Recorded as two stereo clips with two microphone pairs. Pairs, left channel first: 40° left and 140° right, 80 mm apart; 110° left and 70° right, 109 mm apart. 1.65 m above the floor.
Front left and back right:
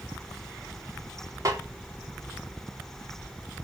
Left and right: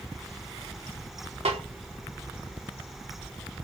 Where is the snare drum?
90° right, 4.5 m.